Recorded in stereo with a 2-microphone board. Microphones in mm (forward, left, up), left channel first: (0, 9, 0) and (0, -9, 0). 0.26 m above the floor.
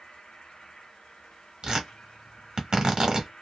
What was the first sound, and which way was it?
An insect, 65° left (ahead or behind).